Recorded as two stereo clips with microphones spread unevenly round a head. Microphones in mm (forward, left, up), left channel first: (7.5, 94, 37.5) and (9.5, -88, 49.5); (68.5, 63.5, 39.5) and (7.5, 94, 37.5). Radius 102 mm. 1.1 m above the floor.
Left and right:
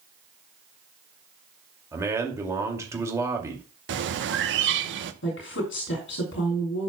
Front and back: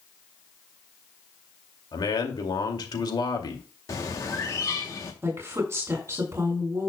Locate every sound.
1.9 s a man speaking: 15° right, 2.5 m
3.9 s a bird: 75° right, 1.0 m
5.2 s a woman speaking: 105° left, 3 m